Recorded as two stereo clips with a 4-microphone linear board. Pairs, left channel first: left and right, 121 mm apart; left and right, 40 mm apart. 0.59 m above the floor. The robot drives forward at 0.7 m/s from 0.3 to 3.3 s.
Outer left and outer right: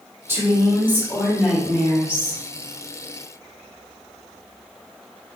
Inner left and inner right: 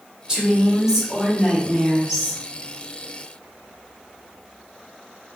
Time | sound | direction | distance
0.3 | a woman speaking | 20° right (ahead or behind) | 1.3 m